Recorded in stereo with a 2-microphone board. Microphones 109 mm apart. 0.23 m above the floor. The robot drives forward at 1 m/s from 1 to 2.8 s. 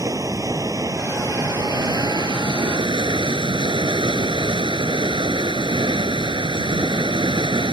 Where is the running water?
30° right (ahead or behind); by 7.7 s 45° right (ahead or behind).